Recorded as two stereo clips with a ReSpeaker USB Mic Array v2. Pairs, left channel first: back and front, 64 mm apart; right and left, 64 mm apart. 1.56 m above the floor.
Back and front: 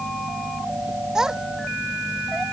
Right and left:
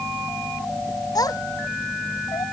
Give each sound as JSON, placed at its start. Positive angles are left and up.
{"t": 1.1, "sound": "a child speaking", "azimuth_deg": -80}